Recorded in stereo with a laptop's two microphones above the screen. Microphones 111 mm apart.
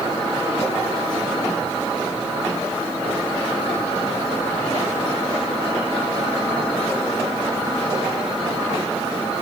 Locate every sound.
Only background noise.